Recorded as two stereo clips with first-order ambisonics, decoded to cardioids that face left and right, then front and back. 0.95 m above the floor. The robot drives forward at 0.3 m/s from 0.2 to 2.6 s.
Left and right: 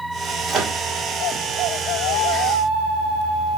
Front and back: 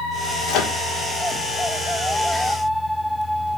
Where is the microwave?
30° right, 0.9 m; by 0.8 s 35° right, 0.8 m.